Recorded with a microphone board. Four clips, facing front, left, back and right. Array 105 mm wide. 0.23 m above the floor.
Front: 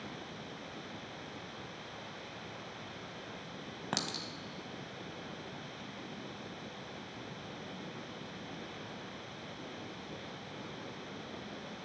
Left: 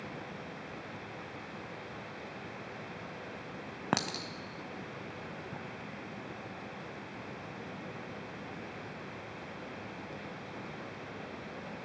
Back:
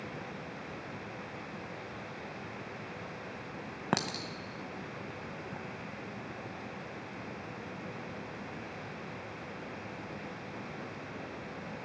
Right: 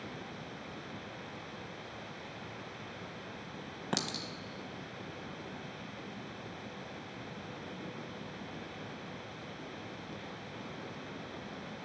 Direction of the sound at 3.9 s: 130° left.